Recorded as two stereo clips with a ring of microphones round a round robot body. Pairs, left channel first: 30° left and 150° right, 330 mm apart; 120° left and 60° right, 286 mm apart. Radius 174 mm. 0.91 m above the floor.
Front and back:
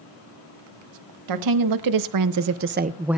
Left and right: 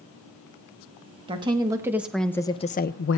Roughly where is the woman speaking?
Behind right.